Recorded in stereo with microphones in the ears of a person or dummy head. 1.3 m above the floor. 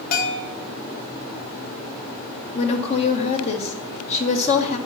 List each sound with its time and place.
0.1 s a bell: 50° left (ahead or behind), 1.4 m
2.5 s a woman speaking: 40° left (ahead or behind), 1.7 m